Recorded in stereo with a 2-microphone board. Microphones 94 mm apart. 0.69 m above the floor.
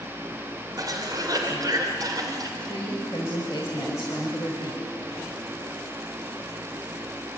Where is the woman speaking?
40° left (ahead or behind), 3.5 m.